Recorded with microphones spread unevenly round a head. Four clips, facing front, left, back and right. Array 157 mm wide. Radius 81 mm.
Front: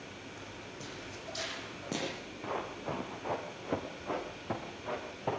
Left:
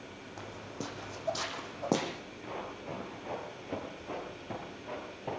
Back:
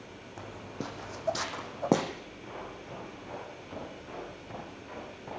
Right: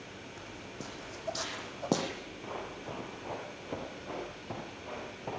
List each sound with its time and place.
0.4 s footsteps: 145° left, 3 m; by 2.1 s 175° right, 3.5 m
2.4 s running footsteps: 10° right, 7.5 m; by 5.4 s straight ahead, 9 m